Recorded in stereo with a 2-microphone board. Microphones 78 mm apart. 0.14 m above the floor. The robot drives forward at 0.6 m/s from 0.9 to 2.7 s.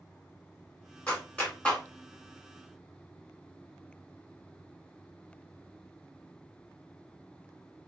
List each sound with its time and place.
1.1 s a clap: 15° left (ahead or behind), 1.3 m